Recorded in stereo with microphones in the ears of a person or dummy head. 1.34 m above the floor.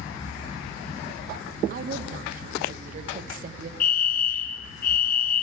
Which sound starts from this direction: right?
A woman speaking, at 1.7 s.